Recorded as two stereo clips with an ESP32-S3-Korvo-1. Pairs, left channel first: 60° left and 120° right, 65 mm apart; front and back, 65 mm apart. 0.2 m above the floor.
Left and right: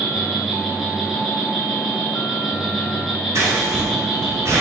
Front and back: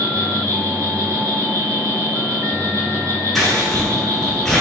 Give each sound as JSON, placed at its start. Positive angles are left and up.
{"t": 0.0, "sound": "an insect", "azimuth_deg": 150, "distance_m": 1.2}
{"t": 3.4, "sound": "scissors", "azimuth_deg": -90, "distance_m": 1.3}